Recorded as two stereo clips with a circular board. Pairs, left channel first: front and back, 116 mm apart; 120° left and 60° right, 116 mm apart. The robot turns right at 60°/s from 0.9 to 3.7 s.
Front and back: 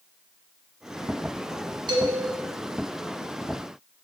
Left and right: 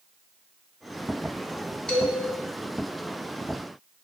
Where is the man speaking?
160° right, 0.9 m; by 2.3 s 135° right, 0.9 m.